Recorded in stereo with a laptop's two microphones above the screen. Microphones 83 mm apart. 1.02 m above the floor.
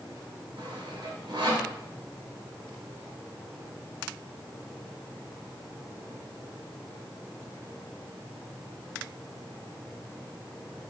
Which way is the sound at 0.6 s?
80° right.